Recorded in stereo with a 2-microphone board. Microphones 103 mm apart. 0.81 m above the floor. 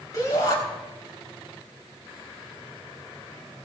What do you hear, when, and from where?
0.1 s a shout: 35° left (ahead or behind), 4 m